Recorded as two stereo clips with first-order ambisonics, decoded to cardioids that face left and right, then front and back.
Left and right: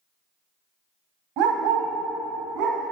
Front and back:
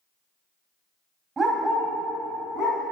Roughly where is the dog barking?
Right.